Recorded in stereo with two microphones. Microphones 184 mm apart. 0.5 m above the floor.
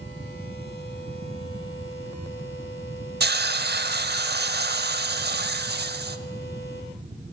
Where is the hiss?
70° right (ahead or behind), 0.7 m.